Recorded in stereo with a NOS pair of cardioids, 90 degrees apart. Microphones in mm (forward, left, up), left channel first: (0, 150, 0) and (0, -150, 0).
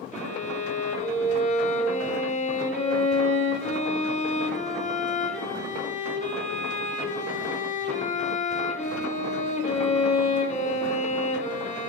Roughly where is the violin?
Ahead left.